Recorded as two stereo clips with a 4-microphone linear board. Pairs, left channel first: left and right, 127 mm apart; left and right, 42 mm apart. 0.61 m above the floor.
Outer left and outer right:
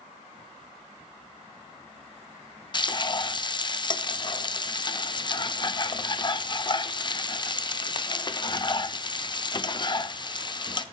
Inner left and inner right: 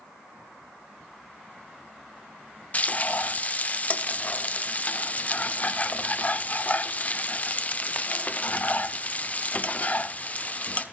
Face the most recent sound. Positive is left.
turn(degrees=35)  # may be behind; listen again after turning